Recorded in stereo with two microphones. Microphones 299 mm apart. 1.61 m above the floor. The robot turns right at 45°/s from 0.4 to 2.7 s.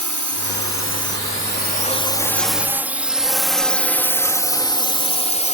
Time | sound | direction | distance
0.0 | a drone | 75° left (ahead or behind) | ?